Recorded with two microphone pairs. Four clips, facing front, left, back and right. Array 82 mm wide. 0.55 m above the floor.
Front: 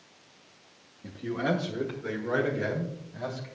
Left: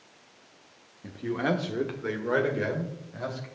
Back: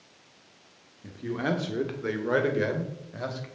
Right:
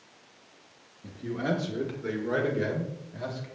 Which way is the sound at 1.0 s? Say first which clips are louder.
Left 2 dB, even; 90° left.